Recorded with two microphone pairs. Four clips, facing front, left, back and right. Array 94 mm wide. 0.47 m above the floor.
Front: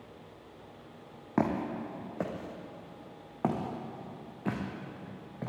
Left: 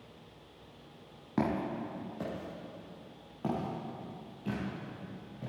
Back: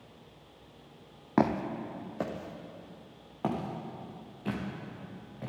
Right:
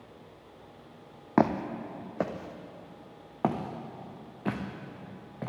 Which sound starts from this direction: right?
Footsteps, at 1.4 s.